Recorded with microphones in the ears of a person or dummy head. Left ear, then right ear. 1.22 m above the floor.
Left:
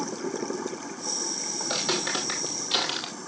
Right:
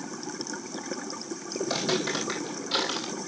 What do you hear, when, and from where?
1.6 s footsteps: 20° left (ahead or behind), 3.5 m